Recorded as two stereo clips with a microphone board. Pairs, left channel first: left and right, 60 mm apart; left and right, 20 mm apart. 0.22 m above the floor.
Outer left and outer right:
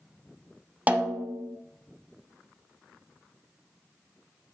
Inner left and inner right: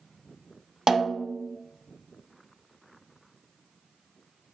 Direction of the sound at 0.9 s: 25° right (ahead or behind).